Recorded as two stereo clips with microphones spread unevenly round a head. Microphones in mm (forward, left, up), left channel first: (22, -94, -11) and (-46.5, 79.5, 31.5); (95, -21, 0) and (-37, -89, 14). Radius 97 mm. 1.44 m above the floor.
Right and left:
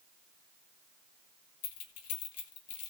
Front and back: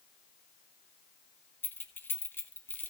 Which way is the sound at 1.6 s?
50° right.